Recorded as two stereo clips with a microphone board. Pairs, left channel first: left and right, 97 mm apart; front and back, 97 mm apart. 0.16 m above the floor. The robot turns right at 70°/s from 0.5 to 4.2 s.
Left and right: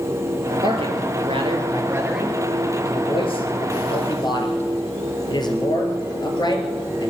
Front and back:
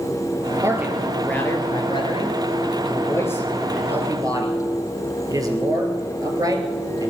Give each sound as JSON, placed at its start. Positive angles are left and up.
{"t": 0.6, "sound": "a man speaking", "azimuth_deg": -120, "distance_m": 2.5}